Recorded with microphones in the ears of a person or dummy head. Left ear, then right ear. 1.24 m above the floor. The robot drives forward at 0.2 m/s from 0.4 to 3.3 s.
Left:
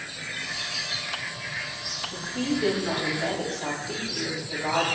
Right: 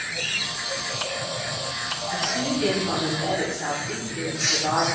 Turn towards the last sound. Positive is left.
turn(degrees=10)  # may be behind; listen again after turning